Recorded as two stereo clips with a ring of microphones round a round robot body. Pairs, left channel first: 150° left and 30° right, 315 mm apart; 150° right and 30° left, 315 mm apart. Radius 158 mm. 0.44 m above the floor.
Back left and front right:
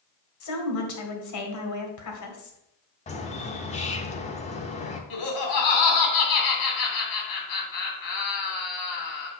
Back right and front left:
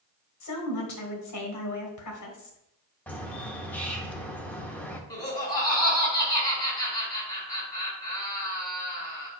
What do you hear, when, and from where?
0.4 s a woman speaking: straight behind, 2 m
3.1 s a bird: 130° left, 0.9 m
5.1 s laughter: 130° left, 3 m